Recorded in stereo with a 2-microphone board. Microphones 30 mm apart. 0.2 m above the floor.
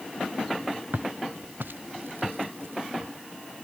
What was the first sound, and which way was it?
Footsteps, 70° right (ahead or behind).